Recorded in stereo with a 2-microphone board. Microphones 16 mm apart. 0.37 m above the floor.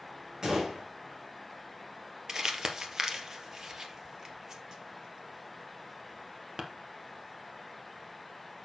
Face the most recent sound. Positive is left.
turn(degrees=-30)  # may be behind; listen again after turning